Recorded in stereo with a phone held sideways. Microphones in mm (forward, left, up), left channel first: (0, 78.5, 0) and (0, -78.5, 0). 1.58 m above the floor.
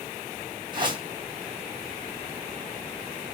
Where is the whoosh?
30° right (ahead or behind), 4 m.